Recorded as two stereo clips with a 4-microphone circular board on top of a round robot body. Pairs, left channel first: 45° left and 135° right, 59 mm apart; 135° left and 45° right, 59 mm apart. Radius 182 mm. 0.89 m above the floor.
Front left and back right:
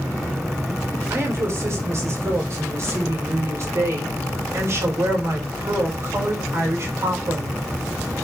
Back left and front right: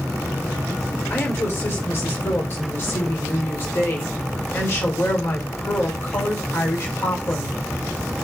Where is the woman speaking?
175° right, 4 m.